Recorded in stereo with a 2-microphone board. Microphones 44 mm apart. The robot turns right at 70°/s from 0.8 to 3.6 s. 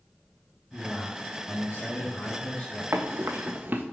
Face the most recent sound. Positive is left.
turn(degrees=-40)  # may be behind; listen again after turning